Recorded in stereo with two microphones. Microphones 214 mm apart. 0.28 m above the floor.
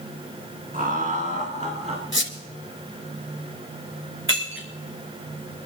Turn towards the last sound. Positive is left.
turn(degrees=-65)  # may be behind; listen again after turning